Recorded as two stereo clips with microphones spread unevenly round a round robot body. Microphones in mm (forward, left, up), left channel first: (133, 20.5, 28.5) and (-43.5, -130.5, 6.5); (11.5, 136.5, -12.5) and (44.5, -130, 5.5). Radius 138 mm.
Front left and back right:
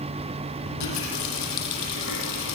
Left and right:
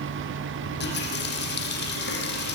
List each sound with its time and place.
0.6 s a running tap: 45° left, 9 m